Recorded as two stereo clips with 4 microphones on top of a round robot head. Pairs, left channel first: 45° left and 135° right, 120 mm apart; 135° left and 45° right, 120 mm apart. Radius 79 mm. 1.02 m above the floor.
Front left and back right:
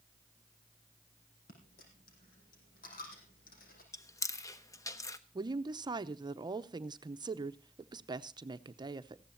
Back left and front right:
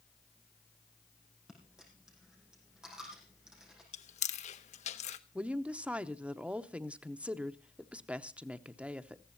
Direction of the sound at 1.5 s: 40° left.